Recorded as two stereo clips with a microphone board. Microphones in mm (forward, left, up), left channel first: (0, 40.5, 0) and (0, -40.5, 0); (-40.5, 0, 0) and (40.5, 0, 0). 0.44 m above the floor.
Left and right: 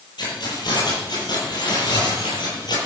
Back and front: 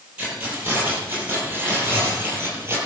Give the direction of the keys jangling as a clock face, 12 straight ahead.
10 o'clock.